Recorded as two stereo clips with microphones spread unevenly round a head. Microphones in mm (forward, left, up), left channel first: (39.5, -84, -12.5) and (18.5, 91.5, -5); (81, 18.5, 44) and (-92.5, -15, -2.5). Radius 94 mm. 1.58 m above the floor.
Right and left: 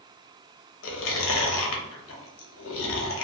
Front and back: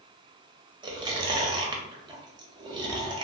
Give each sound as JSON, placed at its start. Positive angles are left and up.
{"t": 0.8, "sound": "chewing", "azimuth_deg": -105, "distance_m": 0.6}